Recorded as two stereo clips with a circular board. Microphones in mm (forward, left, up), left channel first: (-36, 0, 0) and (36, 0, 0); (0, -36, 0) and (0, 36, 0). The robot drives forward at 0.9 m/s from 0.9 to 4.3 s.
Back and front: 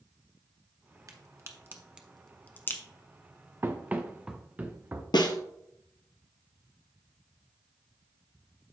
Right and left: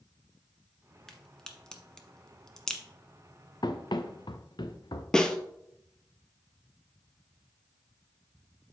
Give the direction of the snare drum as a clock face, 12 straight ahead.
6 o'clock.